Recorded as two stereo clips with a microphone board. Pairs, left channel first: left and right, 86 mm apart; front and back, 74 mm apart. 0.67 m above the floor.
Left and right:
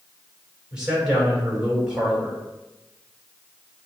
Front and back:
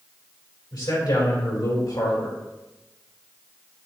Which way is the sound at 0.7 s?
10° right.